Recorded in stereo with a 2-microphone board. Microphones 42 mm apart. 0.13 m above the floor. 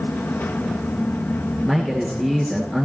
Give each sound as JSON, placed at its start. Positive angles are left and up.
{"t": 1.6, "sound": "a man speaking", "side_deg": 0, "distance_m": 1.9}